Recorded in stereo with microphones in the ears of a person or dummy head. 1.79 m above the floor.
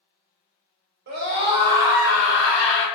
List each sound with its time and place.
1.1 s a scream: 50° right (ahead or behind), 0.7 m; by 2.9 s 10° left (ahead or behind), 0.9 m